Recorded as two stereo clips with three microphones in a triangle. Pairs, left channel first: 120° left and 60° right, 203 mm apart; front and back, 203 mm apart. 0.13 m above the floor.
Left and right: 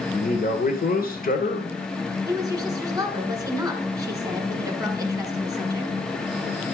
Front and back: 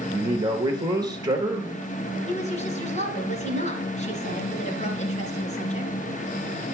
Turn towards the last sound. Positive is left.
turn(degrees=0)